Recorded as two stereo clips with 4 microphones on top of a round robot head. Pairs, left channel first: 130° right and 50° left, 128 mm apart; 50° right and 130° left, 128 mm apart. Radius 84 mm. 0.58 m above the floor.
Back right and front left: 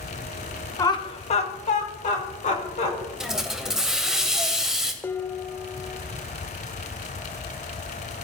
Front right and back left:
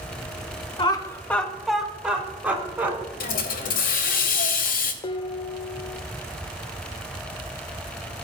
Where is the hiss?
35° right, 0.9 m.